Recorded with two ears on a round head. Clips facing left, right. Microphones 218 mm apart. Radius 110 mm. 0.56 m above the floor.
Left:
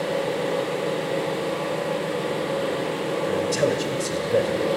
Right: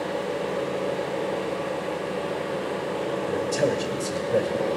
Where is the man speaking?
5° left (ahead or behind), 1.9 m.